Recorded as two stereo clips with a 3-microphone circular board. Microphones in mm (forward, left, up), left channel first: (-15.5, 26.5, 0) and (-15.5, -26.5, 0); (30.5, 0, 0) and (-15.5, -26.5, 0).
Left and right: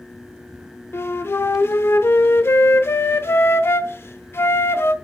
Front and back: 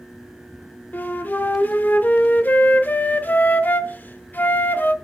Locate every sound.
0.9 s a flute: 75° left, 0.8 m